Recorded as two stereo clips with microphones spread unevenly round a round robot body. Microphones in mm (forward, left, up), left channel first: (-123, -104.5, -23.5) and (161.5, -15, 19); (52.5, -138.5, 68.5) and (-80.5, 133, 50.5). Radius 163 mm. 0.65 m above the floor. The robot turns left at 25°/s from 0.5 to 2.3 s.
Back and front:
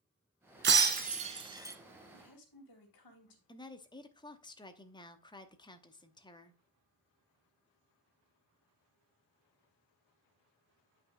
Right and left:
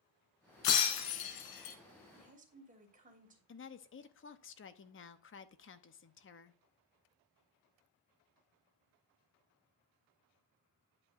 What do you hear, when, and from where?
0.6 s breaking glass: 30° right, 1.4 m; by 1.8 s 60° right, 1.4 m
2.1 s a woman speaking: 175° right, 3 m; by 3.4 s straight behind, 3 m
3.5 s a woman speaking: 100° right, 0.9 m